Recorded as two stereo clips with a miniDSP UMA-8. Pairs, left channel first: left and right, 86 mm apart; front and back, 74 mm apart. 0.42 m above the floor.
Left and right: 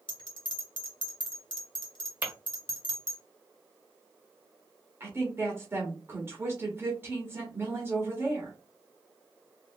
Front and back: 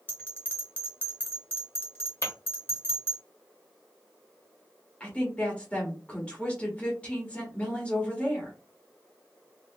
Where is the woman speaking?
60° right, 1.4 m.